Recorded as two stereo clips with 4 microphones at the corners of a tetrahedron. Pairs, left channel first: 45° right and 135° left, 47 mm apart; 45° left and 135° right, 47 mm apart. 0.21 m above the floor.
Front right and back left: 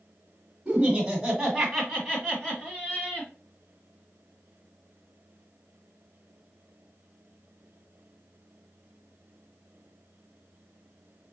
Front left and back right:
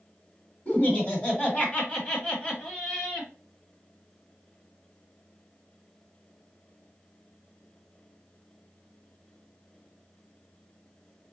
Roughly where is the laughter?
Ahead left.